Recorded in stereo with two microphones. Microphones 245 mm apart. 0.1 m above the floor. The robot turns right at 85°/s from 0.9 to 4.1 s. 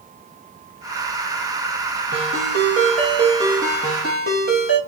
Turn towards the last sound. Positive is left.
turn(degrees=45)